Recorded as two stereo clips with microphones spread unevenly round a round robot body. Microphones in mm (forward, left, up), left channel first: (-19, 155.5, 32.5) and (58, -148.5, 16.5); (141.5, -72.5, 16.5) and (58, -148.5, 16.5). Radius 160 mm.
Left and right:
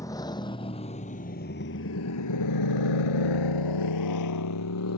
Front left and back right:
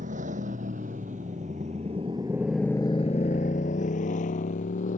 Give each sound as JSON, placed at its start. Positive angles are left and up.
{"t": 0.0, "sound": "a motorcycle", "azimuth_deg": -175}